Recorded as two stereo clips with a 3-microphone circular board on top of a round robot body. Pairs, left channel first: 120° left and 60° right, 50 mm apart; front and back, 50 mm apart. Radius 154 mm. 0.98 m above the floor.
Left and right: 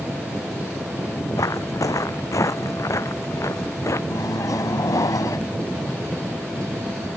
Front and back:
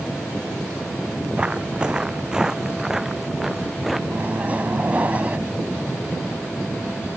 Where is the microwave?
115° left.